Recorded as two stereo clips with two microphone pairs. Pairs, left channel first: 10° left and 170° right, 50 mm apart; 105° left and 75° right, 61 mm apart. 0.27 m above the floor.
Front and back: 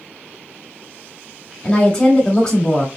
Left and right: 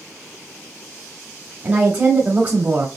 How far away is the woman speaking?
About 1.0 m.